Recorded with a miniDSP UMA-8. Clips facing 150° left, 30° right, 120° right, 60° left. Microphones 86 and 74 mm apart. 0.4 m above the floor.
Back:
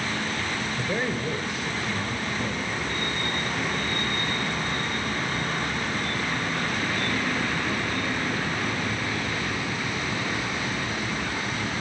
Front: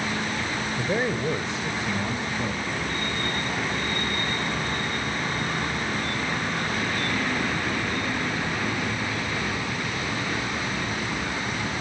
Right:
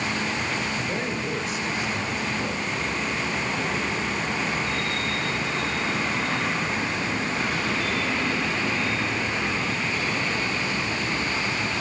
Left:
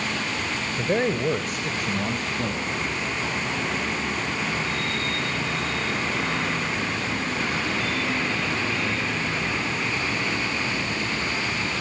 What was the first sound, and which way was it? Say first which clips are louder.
A man speaking: front 4 dB, left 5 dB; 40° left.